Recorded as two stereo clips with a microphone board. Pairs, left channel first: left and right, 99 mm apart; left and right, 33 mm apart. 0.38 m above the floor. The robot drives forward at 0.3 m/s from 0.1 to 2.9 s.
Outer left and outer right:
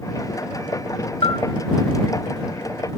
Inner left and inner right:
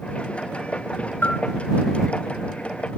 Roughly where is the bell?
Left.